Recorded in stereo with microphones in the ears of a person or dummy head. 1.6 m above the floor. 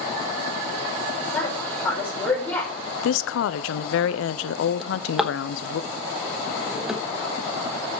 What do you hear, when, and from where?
1.3 s a woman speaking: 15° left (ahead or behind), 5.5 m
3.0 s a woman speaking: 75° left (ahead or behind), 0.8 m
4.8 s a drawer: 5° right (ahead or behind), 1.1 m